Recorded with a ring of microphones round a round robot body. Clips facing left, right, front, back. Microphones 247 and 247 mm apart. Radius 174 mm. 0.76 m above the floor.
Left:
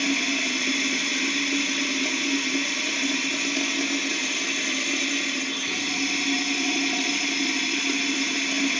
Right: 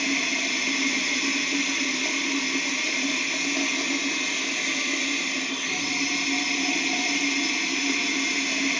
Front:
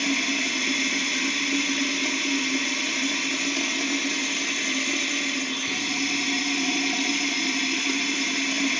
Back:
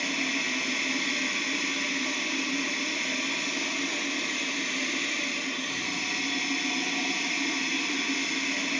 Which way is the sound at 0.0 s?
15° left.